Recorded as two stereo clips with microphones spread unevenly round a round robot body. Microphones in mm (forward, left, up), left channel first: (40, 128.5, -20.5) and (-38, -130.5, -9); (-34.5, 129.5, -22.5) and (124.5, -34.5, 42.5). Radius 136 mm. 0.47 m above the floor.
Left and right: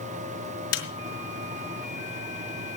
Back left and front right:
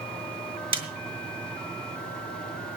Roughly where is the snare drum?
Ahead left.